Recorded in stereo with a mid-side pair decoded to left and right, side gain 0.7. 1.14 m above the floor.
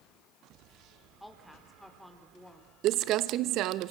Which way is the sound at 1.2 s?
5° left.